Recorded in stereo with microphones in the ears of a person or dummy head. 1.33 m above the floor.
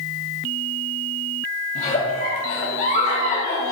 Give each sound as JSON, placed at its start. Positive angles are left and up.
{"t": 1.8, "sound": "a giggle", "side_deg": 45, "distance_m": 2.0}